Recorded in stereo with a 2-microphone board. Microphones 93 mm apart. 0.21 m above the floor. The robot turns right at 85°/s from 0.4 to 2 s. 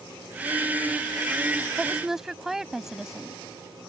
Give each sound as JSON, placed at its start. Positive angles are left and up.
{"t": 1.8, "sound": "a woman speaking", "side_deg": -10}